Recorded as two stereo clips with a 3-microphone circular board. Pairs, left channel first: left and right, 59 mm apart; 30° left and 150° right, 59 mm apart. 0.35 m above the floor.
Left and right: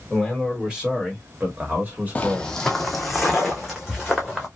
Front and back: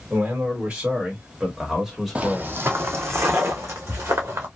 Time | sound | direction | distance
0.1 | a man speaking | 170° right | 1.7 m
2.1 | footsteps | 150° left | 0.5 m